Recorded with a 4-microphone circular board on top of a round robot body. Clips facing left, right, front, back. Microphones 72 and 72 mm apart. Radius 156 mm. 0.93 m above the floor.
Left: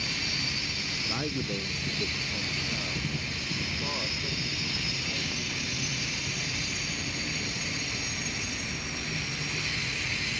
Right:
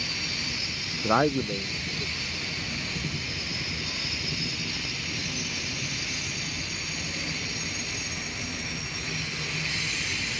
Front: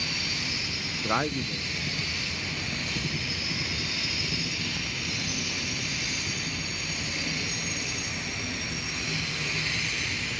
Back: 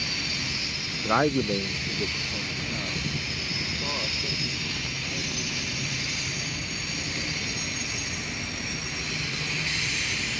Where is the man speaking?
90° right; by 8.8 s 140° left.